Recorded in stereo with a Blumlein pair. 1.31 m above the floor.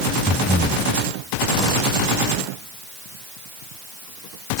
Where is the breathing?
Straight ahead.